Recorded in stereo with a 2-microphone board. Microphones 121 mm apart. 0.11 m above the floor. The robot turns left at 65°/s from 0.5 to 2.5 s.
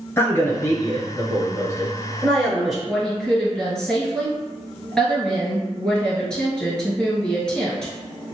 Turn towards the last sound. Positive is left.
turn(degrees=5)  # may be behind; listen again after turning